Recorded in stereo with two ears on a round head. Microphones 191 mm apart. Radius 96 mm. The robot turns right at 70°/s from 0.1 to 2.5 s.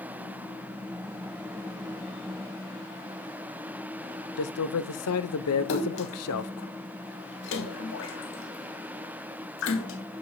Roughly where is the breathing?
No breathing in this recording.